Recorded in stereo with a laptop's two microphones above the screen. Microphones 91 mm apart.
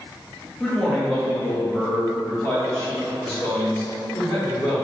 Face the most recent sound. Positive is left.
turn(degrees=75)  # may be behind; listen again after turning